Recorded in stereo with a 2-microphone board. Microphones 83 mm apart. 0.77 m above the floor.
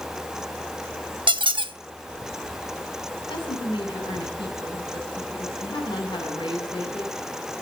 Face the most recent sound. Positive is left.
turn(degrees=65)  # may be behind; listen again after turning